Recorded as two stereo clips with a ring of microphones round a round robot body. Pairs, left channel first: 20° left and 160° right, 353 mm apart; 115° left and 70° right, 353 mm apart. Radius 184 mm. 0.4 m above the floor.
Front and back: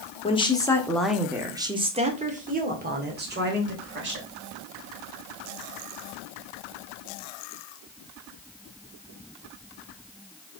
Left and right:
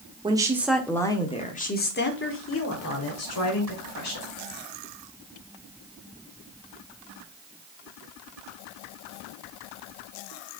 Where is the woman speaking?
15° right, 1.3 m; by 4.3 s 150° left, 2.5 m.